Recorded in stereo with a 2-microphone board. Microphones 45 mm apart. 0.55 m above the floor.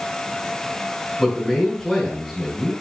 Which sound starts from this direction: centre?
A man speaking, at 1.2 s.